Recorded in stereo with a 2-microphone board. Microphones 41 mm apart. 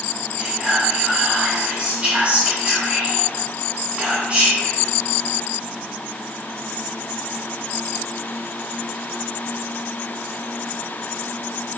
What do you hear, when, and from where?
0.4 s whispering: 30° right (ahead or behind), 1.5 m